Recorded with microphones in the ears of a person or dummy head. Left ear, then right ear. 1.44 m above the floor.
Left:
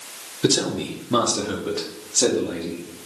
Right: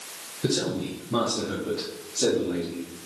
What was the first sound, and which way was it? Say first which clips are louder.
A man speaking: left 6 dB; 35° left (ahead or behind).